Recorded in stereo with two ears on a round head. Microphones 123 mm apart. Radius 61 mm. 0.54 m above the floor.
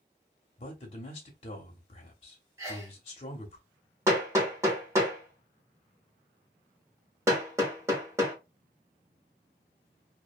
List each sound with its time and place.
0.6 s a man speaking: 45° left (ahead or behind), 0.8 m
2.6 s a sneeze: 20° right (ahead or behind), 1.0 m
4.1 s hammering: 20° right (ahead or behind), 1.2 m